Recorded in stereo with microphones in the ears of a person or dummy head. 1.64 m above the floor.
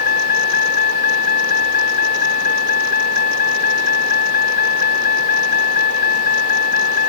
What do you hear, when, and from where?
0.0 s a vehicle: 45° left (ahead or behind)